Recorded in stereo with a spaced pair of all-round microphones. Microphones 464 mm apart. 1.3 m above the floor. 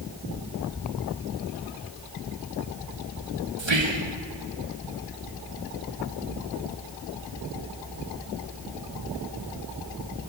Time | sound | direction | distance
3.6 | whispering | 70° right (ahead or behind) | 0.9 m